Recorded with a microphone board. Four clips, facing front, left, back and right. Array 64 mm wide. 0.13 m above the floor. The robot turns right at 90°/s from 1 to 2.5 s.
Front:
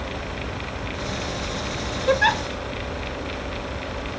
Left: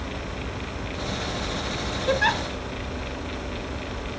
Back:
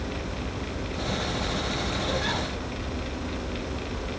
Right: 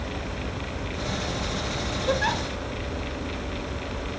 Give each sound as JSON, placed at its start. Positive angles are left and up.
{"t": 2.1, "sound": "a giggle", "azimuth_deg": 15, "distance_m": 0.9}